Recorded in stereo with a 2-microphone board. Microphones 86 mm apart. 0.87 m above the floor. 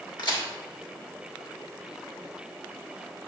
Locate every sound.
0.2 s a crack: 50° left (ahead or behind), 2.5 m